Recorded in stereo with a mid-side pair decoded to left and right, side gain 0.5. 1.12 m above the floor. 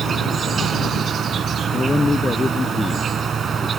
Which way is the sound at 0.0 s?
45° right.